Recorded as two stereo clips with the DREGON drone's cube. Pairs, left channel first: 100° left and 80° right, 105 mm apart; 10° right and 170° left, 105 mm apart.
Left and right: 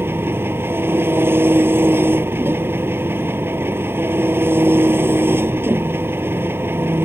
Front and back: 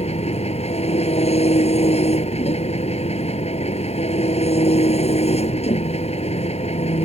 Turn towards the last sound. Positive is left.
turn(degrees=-10)